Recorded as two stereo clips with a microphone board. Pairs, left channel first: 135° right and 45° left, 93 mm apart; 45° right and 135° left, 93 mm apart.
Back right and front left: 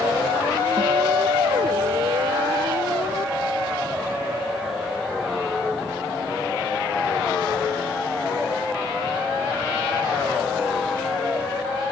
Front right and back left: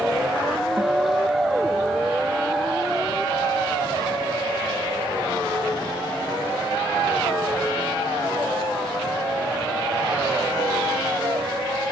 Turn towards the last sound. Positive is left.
turn(degrees=65)